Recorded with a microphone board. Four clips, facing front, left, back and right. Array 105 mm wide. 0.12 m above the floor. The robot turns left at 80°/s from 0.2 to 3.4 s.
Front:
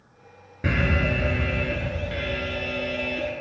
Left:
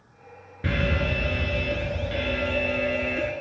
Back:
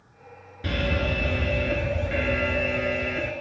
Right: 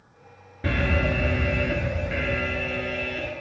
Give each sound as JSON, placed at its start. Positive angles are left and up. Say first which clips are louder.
{"t": 0.6, "sound": "an alarm", "louder": "right 1 dB, front 2 dB", "azimuth_deg": -5, "distance_m": 0.9}